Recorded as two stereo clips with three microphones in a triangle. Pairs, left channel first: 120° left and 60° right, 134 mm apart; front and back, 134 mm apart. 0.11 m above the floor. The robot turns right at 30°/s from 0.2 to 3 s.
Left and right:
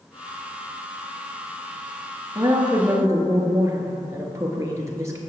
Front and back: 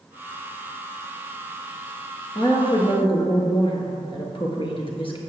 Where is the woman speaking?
25° right, 1.4 m; by 5.2 s 5° right, 1.4 m.